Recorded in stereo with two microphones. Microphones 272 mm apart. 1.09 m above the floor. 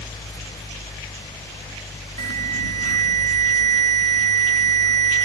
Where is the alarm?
65° left (ahead or behind).